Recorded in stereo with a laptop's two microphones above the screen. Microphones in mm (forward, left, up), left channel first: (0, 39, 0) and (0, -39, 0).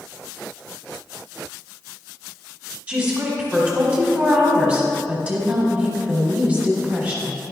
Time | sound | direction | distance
2.9 | a woman speaking | 20° right (ahead or behind) | 1.6 m